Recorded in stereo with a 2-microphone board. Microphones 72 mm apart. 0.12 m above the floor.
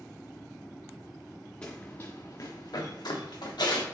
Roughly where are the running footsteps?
Centre.